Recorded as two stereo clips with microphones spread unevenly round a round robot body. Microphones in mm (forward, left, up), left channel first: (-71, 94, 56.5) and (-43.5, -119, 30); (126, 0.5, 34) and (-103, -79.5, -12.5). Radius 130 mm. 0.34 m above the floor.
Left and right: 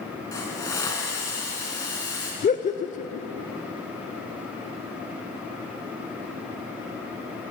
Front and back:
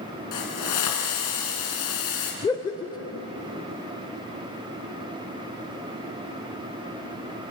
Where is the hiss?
20° left, 3.5 m.